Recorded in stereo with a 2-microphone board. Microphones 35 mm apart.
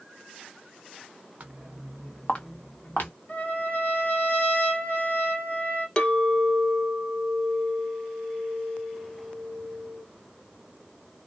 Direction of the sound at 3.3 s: 50° left (ahead or behind).